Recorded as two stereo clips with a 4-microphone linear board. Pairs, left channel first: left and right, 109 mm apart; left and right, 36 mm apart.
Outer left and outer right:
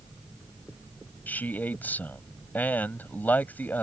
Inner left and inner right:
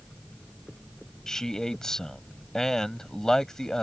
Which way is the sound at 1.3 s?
15° left (ahead or behind).